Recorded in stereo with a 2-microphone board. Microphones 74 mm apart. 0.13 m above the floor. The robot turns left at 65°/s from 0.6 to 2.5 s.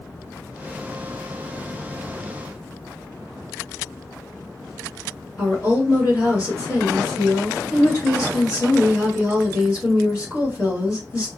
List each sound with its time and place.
5.4 s a woman speaking: 45° left (ahead or behind), 2.0 m